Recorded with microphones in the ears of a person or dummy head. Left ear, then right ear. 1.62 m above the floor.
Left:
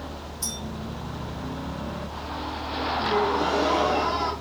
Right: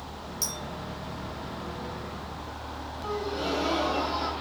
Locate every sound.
0.4 s a clink: 65° right (ahead or behind), 1.8 m
3.0 s a gasp: 55° right (ahead or behind), 1.8 m